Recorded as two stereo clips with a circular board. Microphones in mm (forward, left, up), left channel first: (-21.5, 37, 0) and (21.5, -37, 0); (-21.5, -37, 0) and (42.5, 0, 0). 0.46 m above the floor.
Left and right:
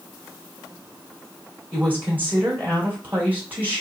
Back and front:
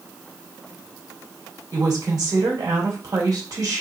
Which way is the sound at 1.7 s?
5° left.